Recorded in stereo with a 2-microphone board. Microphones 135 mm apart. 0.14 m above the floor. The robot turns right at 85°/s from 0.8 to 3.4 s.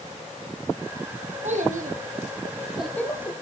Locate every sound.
1.4 s a child speaking: 60° right (ahead or behind), 4 m; by 3.3 s 40° left (ahead or behind), 4 m